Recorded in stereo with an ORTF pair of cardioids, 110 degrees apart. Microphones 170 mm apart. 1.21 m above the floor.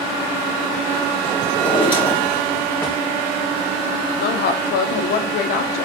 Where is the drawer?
10° left, 2.5 m.